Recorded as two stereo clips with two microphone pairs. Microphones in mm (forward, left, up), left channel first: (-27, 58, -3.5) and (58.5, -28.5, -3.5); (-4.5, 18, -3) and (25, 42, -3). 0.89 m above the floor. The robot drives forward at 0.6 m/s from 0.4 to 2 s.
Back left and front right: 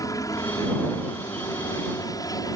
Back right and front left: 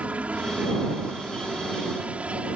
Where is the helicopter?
80° left; by 2.6 s 85° left.